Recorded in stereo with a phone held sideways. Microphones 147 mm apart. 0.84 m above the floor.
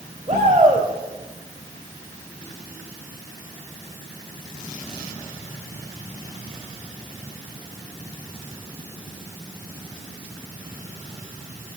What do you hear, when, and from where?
0.3 s a shout: 35° right (ahead or behind), 4 m